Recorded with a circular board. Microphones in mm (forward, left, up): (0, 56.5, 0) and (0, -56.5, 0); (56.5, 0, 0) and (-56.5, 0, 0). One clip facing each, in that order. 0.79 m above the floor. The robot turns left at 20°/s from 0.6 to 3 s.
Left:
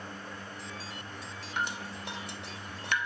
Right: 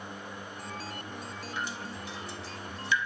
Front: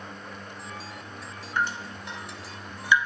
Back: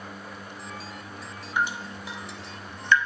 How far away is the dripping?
About 0.8 m.